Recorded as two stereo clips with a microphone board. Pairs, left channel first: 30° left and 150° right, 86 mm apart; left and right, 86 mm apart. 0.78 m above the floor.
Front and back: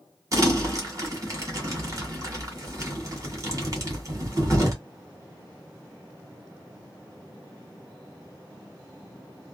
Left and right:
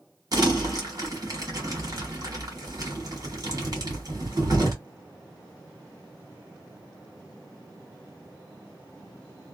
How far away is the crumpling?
About 1.3 m.